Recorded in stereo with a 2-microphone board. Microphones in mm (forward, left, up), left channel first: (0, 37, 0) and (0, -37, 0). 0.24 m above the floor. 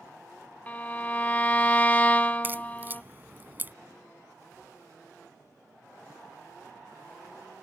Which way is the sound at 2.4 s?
30° right (ahead or behind).